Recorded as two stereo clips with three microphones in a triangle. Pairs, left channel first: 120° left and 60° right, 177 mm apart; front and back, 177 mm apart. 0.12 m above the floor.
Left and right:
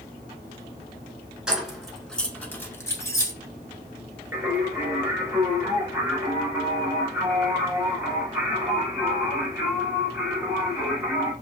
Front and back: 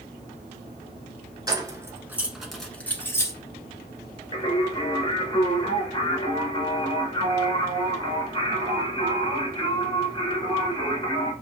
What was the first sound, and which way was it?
Keys jangling, 140° right.